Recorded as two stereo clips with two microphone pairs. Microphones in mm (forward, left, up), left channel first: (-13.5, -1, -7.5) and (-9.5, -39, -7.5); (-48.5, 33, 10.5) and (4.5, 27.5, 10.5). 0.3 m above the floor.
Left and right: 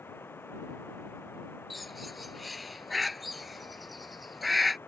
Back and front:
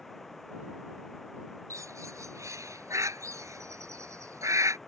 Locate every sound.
0.0 s running water: 90° left
1.7 s a bird: 5° left